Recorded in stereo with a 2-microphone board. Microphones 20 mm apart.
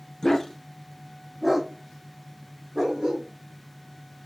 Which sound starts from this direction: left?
A dog barking, at 0.2 s.